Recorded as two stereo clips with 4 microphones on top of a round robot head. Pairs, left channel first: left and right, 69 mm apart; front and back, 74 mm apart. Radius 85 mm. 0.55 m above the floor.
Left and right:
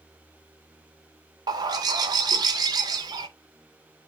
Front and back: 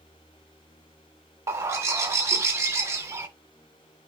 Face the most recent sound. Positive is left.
turn(degrees=-120)